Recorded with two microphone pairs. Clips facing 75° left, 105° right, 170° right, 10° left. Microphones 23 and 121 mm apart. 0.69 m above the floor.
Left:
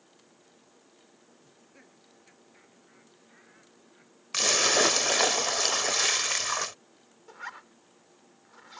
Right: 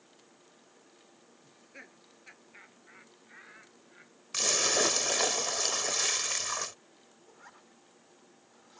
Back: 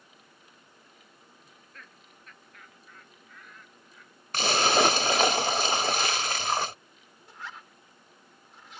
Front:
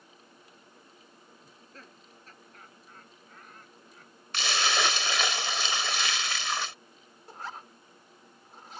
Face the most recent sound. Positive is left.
turn(degrees=60)